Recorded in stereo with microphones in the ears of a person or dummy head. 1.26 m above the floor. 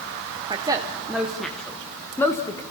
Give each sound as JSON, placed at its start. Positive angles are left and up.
{"t": 0.5, "sound": "a woman speaking", "side_deg": -30, "distance_m": 0.8}